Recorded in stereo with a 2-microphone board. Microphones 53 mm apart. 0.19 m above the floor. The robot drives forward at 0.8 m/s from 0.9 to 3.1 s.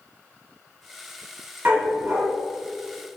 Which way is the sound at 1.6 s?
35° right (ahead or behind).